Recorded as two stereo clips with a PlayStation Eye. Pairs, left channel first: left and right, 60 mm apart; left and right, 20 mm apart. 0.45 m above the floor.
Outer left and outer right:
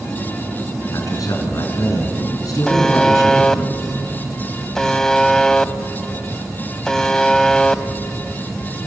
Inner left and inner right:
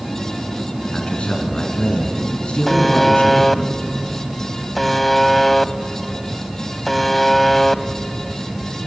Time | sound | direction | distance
0.9 | a man speaking | 75° left (ahead or behind) | 4 m
2.7 | a buzzer | 10° left (ahead or behind) | 0.6 m